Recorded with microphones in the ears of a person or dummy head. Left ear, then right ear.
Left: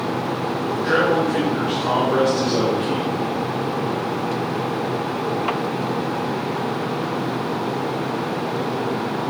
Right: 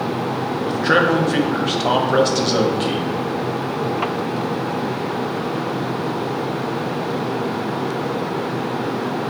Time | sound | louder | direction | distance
0.7 | a man speaking | right 3 dB | 45° right (ahead or behind) | 0.6 m